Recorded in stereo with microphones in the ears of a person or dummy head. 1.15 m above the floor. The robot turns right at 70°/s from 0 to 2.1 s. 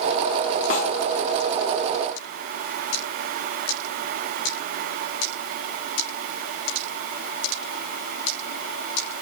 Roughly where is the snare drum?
Left.